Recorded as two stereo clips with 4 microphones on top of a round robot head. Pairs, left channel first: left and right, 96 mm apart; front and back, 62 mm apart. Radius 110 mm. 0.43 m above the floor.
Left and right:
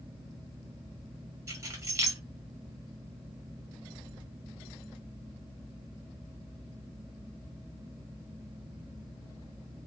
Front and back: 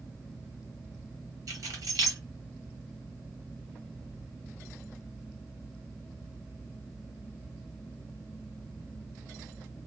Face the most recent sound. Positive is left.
turn(degrees=-150)